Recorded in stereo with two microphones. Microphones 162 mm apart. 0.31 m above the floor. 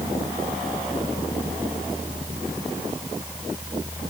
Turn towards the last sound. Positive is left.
No sound to turn to.